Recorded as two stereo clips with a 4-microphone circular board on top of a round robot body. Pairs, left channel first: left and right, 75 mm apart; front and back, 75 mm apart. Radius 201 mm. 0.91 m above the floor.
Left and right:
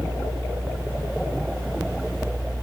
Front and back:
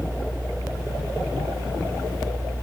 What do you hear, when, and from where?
Only background noise.